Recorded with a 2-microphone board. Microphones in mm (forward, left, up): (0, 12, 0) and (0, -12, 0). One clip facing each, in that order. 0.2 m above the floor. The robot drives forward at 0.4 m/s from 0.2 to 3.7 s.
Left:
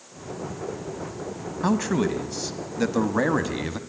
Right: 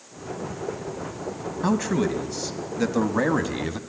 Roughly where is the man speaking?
Centre.